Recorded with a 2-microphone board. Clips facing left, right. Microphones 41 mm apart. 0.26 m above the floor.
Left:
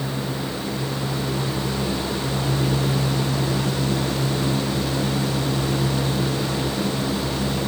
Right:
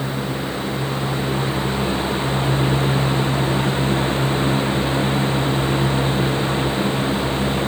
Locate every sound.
Only background noise.